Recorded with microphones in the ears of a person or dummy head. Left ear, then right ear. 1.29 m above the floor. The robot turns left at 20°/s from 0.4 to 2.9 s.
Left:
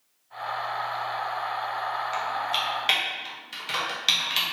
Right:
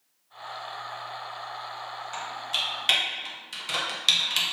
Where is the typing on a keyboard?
20° left (ahead or behind), 0.9 m; by 4.4 s 10° left (ahead or behind), 0.9 m.